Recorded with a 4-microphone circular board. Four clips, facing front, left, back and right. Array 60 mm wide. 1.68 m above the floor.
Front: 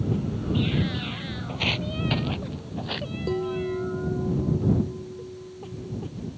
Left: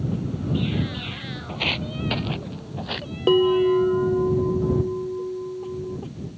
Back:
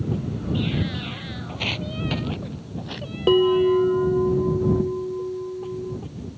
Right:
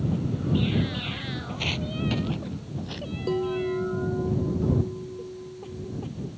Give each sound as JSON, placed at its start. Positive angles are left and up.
{"t": 1.5, "sound": "footsteps", "azimuth_deg": 85}
{"t": 3.3, "sound": "a bell", "azimuth_deg": 135}